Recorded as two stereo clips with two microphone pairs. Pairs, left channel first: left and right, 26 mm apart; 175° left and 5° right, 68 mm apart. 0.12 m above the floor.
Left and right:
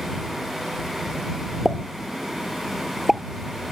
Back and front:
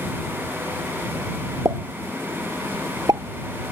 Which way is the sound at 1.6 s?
20° right.